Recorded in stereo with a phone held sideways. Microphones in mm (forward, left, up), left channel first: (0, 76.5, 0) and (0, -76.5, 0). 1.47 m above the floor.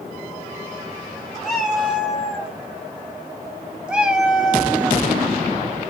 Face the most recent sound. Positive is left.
turn(degrees=-5)  # may be behind; listen again after turning